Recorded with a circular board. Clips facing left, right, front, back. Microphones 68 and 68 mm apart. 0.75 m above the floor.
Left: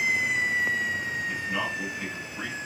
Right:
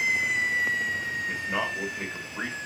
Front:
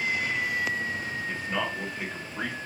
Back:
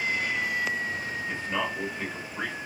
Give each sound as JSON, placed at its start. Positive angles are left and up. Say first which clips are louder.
{"t": 1.3, "sound": "a man speaking", "louder": "right 2 dB, back 1 dB", "azimuth_deg": -80, "distance_m": 1.6}